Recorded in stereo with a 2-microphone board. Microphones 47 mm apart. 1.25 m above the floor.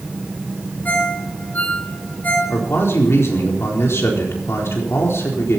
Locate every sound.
0.8 s a ringtone: 40° left (ahead or behind), 5 m
2.5 s a man speaking: 75° left (ahead or behind), 4 m